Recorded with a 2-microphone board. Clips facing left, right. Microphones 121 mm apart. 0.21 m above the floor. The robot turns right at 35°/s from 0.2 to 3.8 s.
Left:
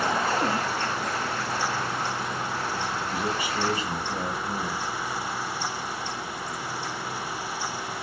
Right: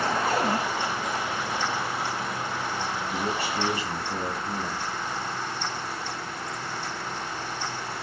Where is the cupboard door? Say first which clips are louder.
Right 1 dB; 55° right (ahead or behind), 8.5 m; by 0.6 s 45° right (ahead or behind), 8.5 m.